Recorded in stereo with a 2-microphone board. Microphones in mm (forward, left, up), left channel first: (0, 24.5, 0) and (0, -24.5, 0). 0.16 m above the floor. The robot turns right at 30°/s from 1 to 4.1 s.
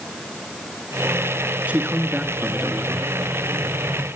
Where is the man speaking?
35° right, 1.7 m; by 3.0 s 5° left, 1.7 m.